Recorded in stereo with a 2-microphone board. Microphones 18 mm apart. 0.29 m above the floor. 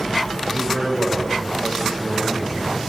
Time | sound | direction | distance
0.5 | a man speaking | 60° right (ahead or behind) | 8 m